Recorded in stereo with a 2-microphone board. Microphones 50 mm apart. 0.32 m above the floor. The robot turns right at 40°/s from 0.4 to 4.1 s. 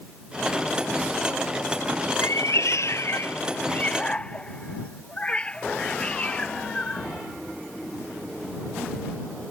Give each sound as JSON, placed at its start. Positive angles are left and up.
{"t": 2.2, "sound": "a cat meowing", "side_deg": 85}